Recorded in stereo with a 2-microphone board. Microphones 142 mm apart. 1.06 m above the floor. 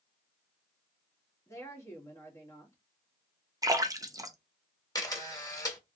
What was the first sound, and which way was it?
A woman speaking, 20° left (ahead or behind).